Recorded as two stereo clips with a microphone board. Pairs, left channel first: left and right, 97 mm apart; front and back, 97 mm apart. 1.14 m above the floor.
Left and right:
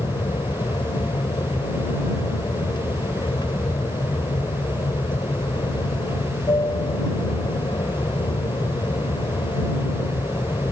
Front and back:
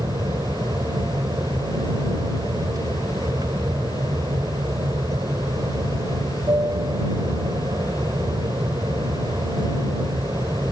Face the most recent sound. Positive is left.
turn(degrees=130)